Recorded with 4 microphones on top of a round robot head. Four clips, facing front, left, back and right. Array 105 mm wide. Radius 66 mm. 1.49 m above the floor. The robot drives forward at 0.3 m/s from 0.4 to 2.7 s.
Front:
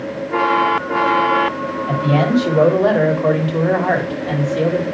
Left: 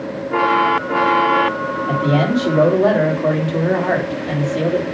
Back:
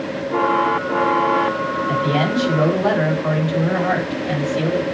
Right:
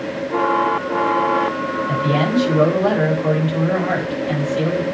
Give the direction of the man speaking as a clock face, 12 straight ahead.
10 o'clock.